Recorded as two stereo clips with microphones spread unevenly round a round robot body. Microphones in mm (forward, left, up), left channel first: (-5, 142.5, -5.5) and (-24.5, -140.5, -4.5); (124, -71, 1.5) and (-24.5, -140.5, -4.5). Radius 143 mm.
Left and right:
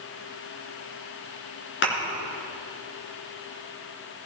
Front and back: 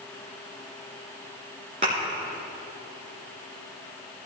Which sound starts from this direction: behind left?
A thud, at 1.8 s.